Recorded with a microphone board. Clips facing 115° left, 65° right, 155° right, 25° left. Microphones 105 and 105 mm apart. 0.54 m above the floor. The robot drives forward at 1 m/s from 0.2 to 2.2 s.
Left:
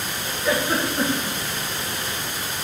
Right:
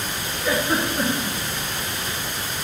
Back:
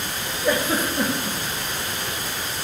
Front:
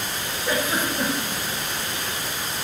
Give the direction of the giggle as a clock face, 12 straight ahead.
5 o'clock.